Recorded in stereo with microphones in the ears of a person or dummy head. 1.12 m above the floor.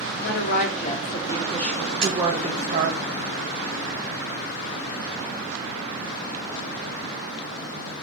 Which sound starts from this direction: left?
A woman speaking, at 0.2 s.